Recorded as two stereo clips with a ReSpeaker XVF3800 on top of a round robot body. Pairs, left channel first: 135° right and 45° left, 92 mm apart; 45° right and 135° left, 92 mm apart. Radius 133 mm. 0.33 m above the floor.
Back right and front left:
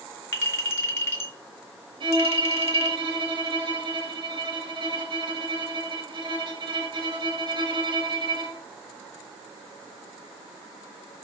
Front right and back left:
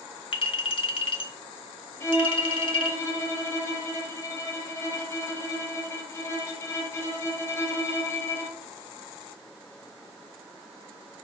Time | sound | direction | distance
0.3 | a clink | 70° right | 2.5 m
2.0 | a violin | 15° left | 4.5 m